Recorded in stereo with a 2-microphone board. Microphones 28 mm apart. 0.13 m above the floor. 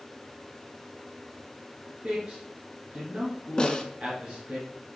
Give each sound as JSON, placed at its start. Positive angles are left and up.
{"t": 2.0, "sound": "a man speaking", "side_deg": -40, "distance_m": 2.0}
{"t": 3.6, "sound": "a snare drum", "side_deg": 25, "distance_m": 0.7}